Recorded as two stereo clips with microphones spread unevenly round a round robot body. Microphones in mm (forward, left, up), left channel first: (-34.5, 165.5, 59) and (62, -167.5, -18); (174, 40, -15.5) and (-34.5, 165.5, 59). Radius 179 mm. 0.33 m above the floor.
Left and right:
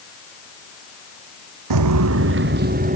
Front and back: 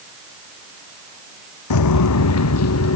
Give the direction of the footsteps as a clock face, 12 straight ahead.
1 o'clock.